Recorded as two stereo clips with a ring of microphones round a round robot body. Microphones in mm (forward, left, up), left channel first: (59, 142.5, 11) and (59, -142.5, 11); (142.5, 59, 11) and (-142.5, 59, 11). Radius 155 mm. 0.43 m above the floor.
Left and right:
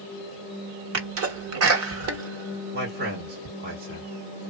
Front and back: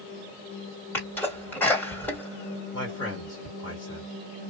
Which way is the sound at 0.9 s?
80° right.